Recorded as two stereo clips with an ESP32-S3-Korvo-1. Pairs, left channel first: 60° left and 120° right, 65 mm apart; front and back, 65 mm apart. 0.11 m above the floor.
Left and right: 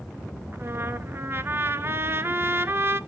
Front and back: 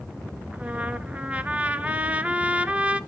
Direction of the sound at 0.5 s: 125° right.